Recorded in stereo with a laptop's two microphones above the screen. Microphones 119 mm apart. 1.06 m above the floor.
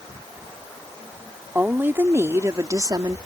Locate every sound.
1.6 s a woman speaking: 15° right (ahead or behind); by 3.2 s 35° right (ahead or behind)